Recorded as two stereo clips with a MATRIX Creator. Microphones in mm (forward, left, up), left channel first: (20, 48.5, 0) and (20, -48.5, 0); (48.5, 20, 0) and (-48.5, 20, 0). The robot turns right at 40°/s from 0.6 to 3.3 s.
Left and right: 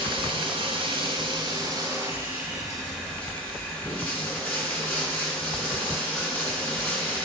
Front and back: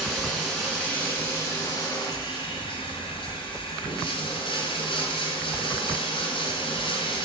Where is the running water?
90° right, 2.5 m; by 7.3 s 15° left, 2.5 m.